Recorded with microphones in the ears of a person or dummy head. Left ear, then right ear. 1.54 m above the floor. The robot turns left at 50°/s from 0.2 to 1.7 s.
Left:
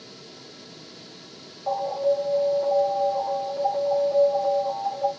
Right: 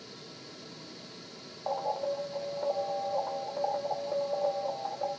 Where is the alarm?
25° right (ahead or behind), 0.8 m.